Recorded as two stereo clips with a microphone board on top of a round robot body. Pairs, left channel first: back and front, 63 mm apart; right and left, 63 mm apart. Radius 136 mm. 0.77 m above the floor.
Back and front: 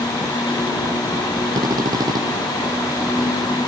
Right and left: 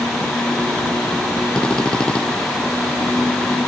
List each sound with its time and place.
1.6 s a drill: 15° right